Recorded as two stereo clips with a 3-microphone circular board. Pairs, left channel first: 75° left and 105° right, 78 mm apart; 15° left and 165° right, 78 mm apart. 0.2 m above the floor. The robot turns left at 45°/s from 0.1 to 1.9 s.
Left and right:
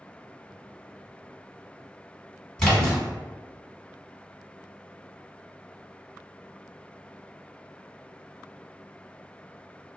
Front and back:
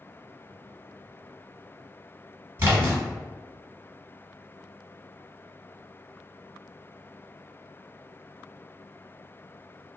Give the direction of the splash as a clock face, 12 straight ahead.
7 o'clock.